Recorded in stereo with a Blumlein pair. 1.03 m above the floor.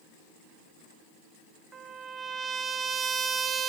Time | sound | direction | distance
1.7 | a trumpet | 15° right | 1.8 m